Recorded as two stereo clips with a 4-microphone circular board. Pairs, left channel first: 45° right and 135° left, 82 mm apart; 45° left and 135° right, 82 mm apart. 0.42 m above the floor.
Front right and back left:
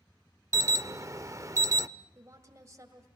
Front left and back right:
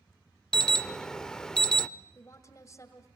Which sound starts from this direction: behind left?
An alarm, at 0.5 s.